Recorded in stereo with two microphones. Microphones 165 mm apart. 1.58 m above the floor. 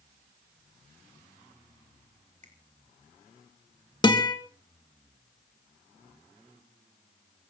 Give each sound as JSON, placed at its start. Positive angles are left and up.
{"t": 2.4, "sound": "a finger snap", "side_deg": -45, "distance_m": 3.5}
{"t": 4.0, "sound": "a guitar", "side_deg": 25, "distance_m": 2.0}